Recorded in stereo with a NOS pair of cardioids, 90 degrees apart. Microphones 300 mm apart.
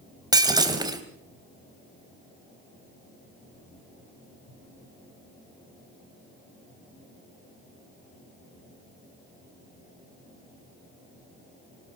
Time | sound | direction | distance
0.3 | breaking glass | 15° right | 3.5 m